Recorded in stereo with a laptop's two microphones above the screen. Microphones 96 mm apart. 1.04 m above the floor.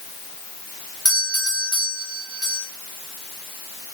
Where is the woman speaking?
I don't hear a woman speaking.